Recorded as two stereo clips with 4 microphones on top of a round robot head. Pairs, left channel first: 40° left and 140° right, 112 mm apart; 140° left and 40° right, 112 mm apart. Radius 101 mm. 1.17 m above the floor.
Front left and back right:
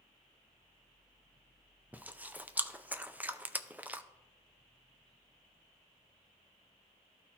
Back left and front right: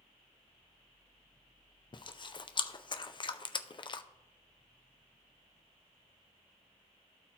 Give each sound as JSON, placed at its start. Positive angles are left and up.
{"t": 1.9, "sound": "chewing", "azimuth_deg": 150, "distance_m": 0.5}